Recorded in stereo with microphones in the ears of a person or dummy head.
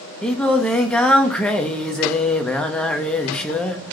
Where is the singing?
5° left (ahead or behind), 0.9 m.